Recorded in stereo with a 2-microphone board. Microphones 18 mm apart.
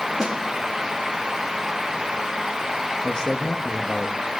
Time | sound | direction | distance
0.2 | a snare drum | 50° right (ahead or behind) | 4 m
3.0 | a man speaking | 40° left (ahead or behind) | 1.6 m